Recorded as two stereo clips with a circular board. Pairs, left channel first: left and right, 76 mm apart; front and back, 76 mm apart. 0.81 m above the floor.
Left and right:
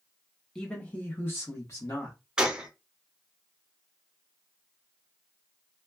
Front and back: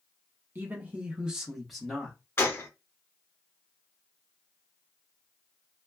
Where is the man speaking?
165° left, 0.9 m; by 2.2 s 75° left, 1.2 m.